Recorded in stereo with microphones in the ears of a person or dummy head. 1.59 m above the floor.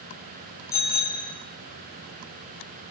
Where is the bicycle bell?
15° left (ahead or behind), 6.5 m.